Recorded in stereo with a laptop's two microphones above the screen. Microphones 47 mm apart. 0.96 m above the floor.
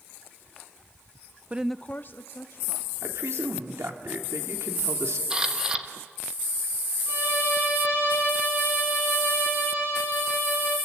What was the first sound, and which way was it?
A woman speaking, 30° right (ahead or behind).